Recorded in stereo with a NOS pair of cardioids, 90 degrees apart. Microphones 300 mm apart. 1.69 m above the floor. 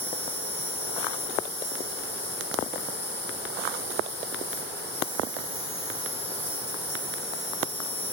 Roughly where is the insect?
Ahead.